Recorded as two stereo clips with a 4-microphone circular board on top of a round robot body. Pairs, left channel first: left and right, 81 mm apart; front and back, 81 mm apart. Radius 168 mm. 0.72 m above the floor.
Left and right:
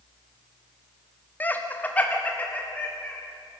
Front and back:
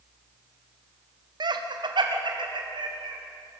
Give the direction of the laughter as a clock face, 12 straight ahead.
7 o'clock.